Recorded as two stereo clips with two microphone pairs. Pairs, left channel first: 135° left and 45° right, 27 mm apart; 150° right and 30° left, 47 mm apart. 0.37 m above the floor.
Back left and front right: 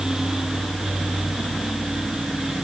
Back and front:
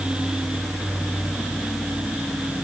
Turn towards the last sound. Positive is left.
No sound to turn to.